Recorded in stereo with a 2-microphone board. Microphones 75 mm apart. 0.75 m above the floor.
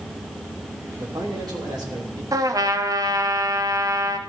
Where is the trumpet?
55° right (ahead or behind), 0.9 m.